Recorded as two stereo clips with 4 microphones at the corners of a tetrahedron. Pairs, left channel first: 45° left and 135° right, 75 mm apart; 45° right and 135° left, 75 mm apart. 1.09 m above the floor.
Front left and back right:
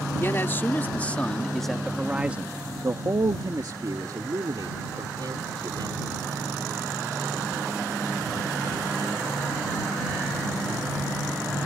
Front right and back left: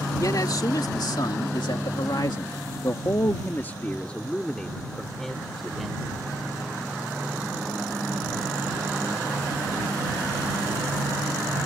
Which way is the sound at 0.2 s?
10° right.